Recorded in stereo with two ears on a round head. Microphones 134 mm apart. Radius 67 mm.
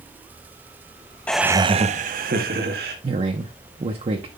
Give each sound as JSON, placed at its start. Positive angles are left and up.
{"t": 1.3, "sound": "laughter", "side_deg": 10, "distance_m": 0.6}
{"t": 3.0, "sound": "a man speaking", "side_deg": -40, "distance_m": 0.9}